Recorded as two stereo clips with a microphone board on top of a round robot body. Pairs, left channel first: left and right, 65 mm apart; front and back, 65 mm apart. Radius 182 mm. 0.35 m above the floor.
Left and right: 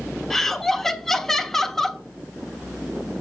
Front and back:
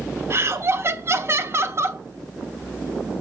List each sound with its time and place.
0.3 s laughter: 170° left, 1.1 m